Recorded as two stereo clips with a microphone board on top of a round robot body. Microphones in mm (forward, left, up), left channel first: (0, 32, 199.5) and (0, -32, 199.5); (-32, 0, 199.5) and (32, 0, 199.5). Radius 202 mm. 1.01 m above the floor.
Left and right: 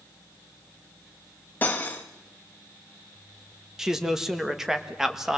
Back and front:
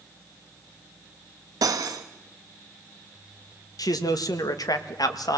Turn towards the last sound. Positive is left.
turn(degrees=-175)